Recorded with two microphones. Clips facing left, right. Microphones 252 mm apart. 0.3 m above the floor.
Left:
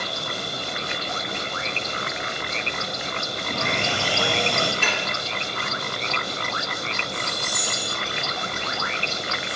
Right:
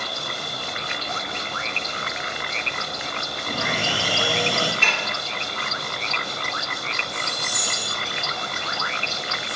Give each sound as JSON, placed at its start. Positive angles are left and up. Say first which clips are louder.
{"t": 3.5, "sound": "sawing", "louder": "even", "side_deg": -5, "distance_m": 6.0}
{"t": 4.8, "sound": "dishes clattering", "louder": "left 2 dB", "side_deg": 5, "distance_m": 1.9}